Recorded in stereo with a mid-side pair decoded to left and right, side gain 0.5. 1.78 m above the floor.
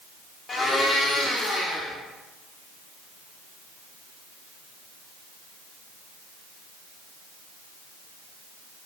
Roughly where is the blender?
Ahead left.